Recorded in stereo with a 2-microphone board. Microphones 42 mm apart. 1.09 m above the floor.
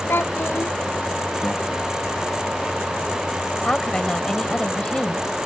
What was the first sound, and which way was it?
A child speaking, 70° left (ahead or behind).